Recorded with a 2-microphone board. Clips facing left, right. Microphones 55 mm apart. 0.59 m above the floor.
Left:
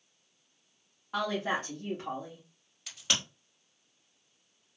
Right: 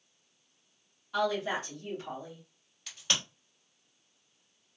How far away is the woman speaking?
About 1.2 m.